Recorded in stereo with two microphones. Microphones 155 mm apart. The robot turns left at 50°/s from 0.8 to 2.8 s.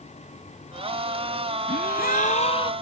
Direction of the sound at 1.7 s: 80° left.